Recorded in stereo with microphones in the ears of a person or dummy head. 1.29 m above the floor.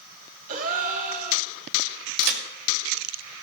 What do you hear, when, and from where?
0.5 s a gasp: 40° right (ahead or behind), 1.5 m
2.2 s a crack: 60° right (ahead or behind), 2 m